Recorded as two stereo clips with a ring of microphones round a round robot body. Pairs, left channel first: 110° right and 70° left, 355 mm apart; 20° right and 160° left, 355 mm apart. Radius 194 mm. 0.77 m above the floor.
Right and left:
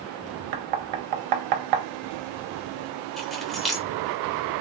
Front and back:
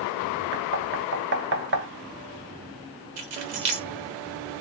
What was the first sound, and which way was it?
Knocking, 95° left.